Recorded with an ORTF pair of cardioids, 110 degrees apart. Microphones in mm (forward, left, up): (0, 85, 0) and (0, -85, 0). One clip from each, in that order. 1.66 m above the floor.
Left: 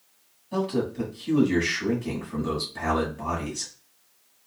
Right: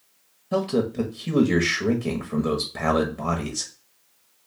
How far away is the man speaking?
About 1.3 m.